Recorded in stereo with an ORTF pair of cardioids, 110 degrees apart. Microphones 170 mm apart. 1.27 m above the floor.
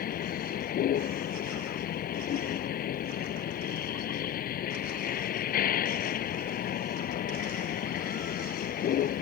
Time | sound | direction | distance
0.0 | a vehicle | 60° left | ?